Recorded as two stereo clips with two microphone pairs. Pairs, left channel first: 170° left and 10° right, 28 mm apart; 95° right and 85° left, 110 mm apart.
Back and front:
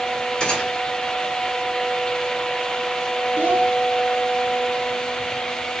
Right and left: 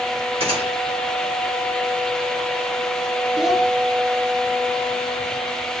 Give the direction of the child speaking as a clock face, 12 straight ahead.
12 o'clock.